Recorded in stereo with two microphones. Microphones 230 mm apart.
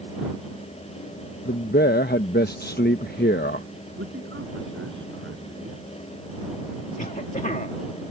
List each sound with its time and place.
1.4 s a man speaking: 45° left (ahead or behind)
4.0 s a man speaking: 55° right (ahead or behind)
7.0 s a cough: 35° left (ahead or behind)